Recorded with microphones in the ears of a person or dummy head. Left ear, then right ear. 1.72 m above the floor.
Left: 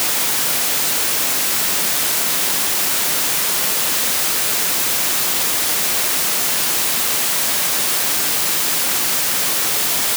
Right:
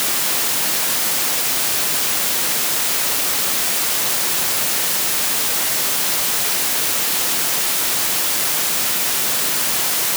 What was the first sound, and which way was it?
Only background noise.